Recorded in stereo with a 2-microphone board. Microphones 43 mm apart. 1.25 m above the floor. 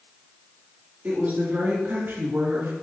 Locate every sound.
1.0 s a woman speaking: 45° right (ahead or behind), 3.5 m; by 2.7 s 75° right (ahead or behind), 2 m